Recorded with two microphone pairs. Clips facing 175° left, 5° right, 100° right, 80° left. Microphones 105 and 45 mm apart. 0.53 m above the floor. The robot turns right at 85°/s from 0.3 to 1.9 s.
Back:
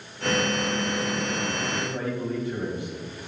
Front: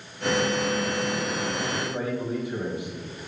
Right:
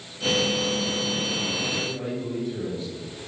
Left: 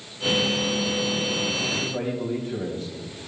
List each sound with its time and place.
1.7 s a man speaking: 45° left, 3 m; by 3.0 s 65° left, 3 m